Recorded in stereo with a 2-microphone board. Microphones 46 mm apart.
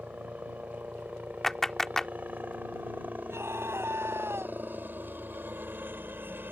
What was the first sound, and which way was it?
A helicopter, 30° right (ahead or behind).